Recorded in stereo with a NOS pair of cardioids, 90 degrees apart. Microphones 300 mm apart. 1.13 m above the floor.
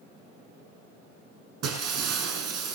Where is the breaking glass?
55° right, 6 m.